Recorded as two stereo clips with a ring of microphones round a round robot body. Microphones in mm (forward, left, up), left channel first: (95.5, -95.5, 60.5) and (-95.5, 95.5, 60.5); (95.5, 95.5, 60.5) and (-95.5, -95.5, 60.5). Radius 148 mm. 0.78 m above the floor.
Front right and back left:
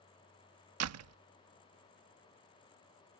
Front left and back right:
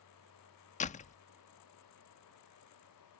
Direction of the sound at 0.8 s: 110° left.